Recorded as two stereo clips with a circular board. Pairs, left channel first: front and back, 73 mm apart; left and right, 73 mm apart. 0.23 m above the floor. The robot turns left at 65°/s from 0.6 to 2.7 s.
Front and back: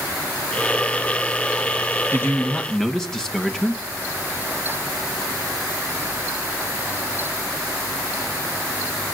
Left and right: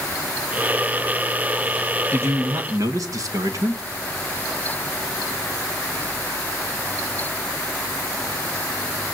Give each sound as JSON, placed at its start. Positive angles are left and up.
{"t": 2.1, "sound": "a man speaking", "azimuth_deg": -40, "distance_m": 2.0}